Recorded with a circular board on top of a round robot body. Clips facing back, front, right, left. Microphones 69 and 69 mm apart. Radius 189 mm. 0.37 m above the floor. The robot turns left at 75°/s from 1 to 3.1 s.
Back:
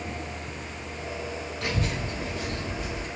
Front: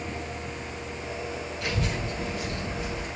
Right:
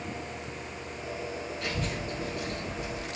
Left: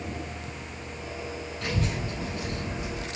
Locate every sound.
1.6 s a child speaking: 145° left, 2.5 m; by 3.1 s 35° left, 2.5 m